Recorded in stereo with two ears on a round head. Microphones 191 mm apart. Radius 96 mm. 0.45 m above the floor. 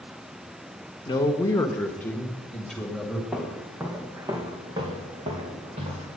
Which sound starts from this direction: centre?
Footsteps, at 3.3 s.